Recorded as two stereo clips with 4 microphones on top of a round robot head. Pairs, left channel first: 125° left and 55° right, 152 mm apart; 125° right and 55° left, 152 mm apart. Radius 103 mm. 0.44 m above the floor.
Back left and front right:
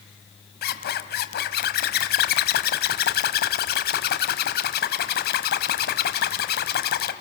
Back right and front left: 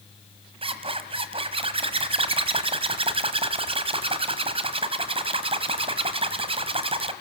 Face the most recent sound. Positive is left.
turn(degrees=110)